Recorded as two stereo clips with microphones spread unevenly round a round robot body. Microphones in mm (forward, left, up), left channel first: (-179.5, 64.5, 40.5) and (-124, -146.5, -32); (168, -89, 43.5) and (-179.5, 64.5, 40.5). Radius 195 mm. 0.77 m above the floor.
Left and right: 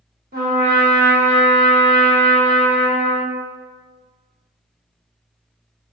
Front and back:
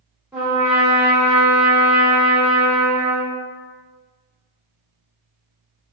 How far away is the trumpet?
About 1.3 m.